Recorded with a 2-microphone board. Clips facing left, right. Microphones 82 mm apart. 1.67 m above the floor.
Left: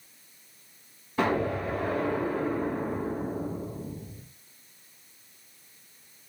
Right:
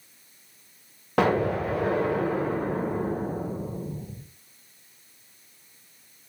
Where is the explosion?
75° right (ahead or behind), 1.0 m.